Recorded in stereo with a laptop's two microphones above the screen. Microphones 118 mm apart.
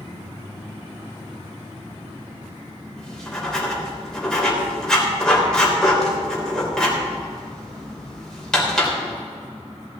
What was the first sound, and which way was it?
Writing, 5° left (ahead or behind).